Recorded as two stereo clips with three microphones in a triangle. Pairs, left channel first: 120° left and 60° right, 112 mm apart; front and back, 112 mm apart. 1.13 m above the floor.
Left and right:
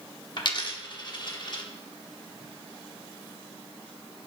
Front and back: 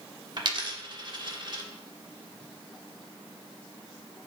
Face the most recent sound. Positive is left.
turn(degrees=150)